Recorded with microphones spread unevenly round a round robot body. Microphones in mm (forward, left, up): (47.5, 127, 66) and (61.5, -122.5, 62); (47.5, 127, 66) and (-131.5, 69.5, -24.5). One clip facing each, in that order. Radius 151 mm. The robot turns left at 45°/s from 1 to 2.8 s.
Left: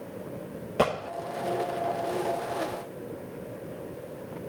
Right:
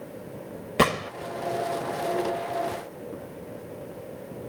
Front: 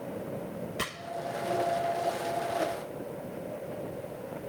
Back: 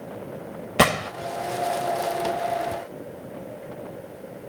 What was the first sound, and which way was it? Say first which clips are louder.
A gunshot: right 3 dB, back 17 dB; 150° right.